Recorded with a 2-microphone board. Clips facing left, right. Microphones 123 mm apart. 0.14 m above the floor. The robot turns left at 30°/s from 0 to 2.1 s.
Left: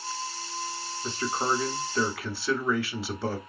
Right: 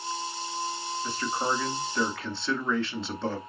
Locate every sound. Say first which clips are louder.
1.0 s a man speaking: left 1 dB; 40° left, 1.3 m; by 3.4 s 10° left, 1.3 m